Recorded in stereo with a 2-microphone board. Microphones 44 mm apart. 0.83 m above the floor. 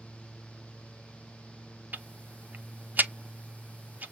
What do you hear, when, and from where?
1.9 s ticking: 45° right (ahead or behind), 0.5 m